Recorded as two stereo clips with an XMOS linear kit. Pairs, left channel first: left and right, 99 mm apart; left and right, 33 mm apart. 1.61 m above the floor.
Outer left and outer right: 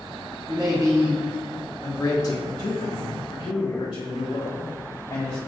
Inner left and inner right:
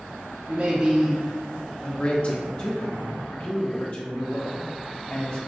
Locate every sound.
0.5 s a man speaking: 45° right (ahead or behind), 0.6 m; by 2.4 s 40° left (ahead or behind), 0.8 m
2.5 s a man speaking: 45° left (ahead or behind), 0.6 m